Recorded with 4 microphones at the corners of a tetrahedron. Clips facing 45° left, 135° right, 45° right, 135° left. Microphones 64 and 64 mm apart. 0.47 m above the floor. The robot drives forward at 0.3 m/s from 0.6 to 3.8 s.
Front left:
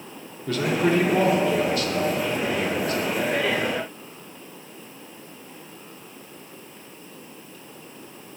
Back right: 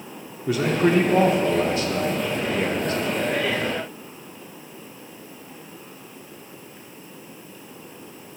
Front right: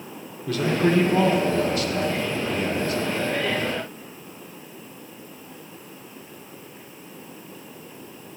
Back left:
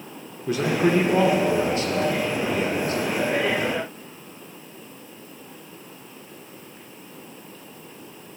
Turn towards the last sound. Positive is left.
turn(degrees=180)